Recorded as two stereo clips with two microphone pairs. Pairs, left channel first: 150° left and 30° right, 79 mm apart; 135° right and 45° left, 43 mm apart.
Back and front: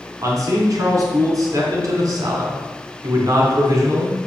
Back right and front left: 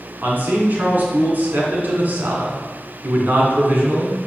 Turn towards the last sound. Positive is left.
turn(degrees=5)